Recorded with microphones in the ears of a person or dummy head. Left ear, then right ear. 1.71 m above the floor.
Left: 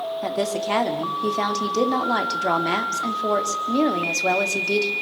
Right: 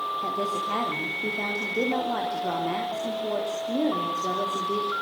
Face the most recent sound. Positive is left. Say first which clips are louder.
# left 3 dB
turn(degrees=75)  # may be behind; listen again after turning